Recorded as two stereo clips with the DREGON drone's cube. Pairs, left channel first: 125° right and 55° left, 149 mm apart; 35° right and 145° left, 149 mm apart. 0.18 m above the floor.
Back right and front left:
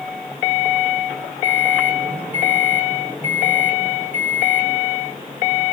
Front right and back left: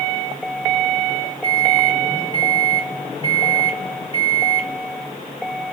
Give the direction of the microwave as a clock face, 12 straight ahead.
8 o'clock.